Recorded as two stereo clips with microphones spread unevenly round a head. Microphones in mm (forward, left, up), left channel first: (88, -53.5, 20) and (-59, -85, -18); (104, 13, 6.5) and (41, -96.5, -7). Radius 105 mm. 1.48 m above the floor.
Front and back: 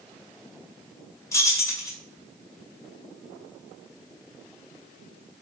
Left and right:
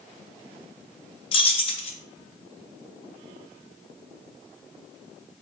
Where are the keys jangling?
65° left, 0.5 m.